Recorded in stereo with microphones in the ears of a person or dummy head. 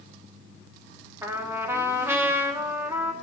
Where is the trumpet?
10° right (ahead or behind), 1.3 m.